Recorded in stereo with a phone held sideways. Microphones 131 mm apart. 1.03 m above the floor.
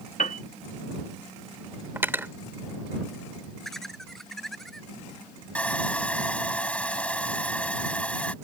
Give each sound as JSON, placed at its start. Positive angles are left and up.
{"t": 0.2, "sound": "a piano", "side_deg": 85}
{"t": 2.0, "sound": "cutlery clinking", "side_deg": -20}
{"t": 3.6, "sound": "laughter", "side_deg": 5}
{"t": 5.5, "sound": "sawing", "side_deg": 10}